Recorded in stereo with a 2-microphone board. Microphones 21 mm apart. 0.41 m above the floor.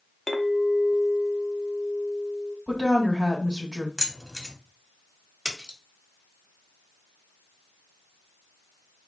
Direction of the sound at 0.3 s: 15° left (ahead or behind).